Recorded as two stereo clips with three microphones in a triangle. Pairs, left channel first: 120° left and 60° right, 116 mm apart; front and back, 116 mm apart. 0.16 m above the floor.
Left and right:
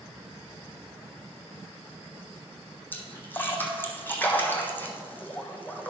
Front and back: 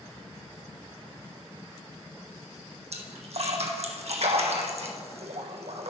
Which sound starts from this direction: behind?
A splash, at 2.9 s.